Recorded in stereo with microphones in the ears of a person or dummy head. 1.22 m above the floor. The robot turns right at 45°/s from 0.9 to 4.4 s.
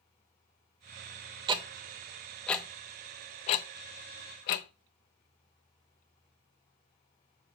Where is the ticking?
30° right (ahead or behind), 0.6 m; by 4.7 s 50° left (ahead or behind), 0.6 m.